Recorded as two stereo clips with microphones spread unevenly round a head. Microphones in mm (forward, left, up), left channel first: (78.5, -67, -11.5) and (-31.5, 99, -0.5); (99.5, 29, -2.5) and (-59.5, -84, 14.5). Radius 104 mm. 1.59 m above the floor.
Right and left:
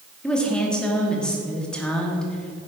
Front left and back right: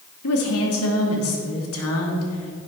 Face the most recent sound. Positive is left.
turn(degrees=30)